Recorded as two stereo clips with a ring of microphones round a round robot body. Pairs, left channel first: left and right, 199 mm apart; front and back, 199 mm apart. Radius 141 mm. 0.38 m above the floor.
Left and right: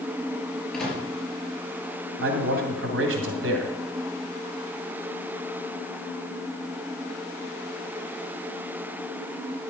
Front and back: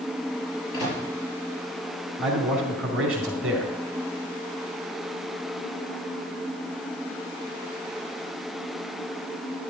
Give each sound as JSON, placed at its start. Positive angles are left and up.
{"t": 0.7, "sound": "a microwave", "azimuth_deg": 0, "distance_m": 6.0}
{"t": 2.2, "sound": "a man speaking", "azimuth_deg": -95, "distance_m": 2.5}